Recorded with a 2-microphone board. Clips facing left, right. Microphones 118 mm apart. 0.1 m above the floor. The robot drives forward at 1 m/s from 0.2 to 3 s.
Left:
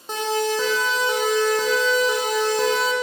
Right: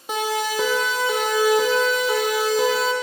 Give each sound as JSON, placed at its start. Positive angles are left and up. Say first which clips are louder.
{"t": 0.1, "sound": "a siren", "louder": "left 1 dB", "side_deg": -10, "distance_m": 5.5}